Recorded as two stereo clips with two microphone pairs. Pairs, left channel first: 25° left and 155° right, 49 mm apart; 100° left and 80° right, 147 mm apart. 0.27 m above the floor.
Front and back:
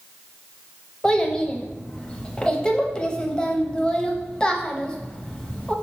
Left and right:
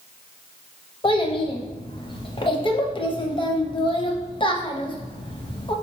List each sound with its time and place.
1.0 s a child speaking: 85° left, 0.6 m